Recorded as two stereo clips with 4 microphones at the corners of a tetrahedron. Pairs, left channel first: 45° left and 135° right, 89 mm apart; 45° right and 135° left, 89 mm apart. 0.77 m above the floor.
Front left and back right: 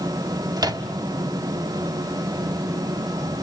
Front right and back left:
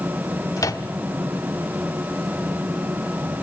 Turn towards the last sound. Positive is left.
turn(degrees=-95)